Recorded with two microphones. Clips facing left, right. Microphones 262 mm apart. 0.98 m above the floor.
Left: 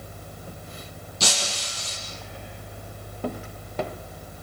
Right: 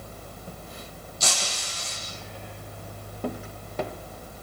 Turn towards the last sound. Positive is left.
turn(degrees=75)  # may be behind; listen again after turning